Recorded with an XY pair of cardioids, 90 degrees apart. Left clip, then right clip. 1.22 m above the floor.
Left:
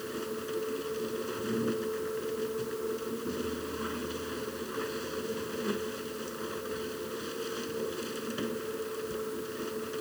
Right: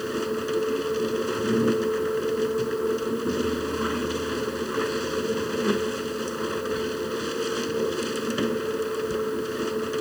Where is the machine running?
65° right.